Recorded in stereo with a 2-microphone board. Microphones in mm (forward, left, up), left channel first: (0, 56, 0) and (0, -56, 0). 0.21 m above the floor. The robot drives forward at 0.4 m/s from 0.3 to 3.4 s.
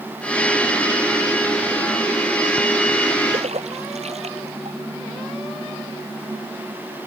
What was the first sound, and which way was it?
A splash, 75° right (ahead or behind).